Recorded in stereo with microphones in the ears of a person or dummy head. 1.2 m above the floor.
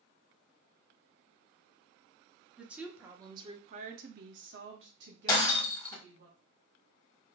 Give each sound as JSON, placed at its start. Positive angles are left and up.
{"t": 2.6, "sound": "a woman speaking", "side_deg": 0, "distance_m": 1.1}
{"t": 5.3, "sound": "breaking glass", "side_deg": 25, "distance_m": 1.5}